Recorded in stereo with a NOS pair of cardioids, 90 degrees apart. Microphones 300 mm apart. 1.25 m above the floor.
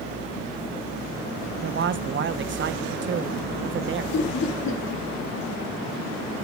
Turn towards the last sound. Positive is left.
turn(degrees=60)